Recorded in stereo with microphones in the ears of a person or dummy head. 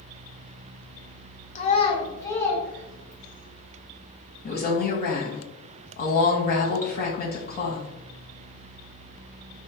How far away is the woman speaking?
About 1.2 m.